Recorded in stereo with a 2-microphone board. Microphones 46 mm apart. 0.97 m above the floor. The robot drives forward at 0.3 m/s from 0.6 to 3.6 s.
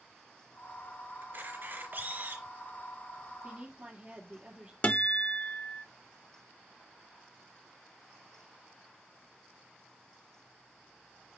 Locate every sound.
1.2 s a camera shutter: 50° right (ahead or behind), 3 m; by 2.5 s 45° right (ahead or behind), 3 m
3.4 s a woman speaking: 35° right (ahead or behind), 1.8 m
4.8 s a guitar: 35° left (ahead or behind), 0.7 m